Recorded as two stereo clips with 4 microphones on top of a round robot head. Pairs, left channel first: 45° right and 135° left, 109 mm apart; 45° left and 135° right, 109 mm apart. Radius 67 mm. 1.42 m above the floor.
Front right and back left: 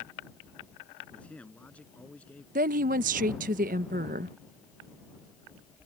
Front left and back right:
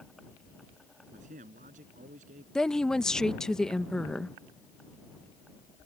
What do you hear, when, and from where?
1.1 s a man speaking: 120° right
2.5 s a woman speaking: 130° left